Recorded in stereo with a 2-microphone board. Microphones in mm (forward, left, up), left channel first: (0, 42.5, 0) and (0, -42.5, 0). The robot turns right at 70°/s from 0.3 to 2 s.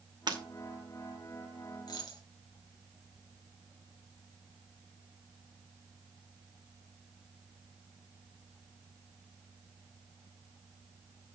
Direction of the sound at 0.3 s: 60° right (ahead or behind).